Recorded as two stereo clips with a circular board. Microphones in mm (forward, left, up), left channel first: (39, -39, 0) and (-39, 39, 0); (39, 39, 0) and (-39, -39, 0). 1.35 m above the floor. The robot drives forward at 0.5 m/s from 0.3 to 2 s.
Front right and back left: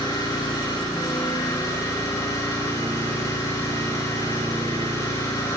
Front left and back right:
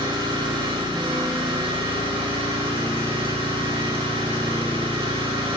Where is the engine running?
95° right, 5.5 m; by 5.6 s 105° right, 6 m.